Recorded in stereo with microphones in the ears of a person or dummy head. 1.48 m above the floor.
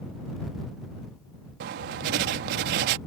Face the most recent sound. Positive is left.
turn(degrees=-40)  # may be behind; listen again after turning